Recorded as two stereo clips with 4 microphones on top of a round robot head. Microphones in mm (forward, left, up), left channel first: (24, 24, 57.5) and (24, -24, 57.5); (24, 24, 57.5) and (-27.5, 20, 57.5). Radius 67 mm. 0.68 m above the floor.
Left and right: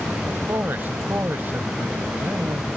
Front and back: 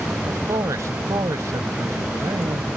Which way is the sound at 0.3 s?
145° right.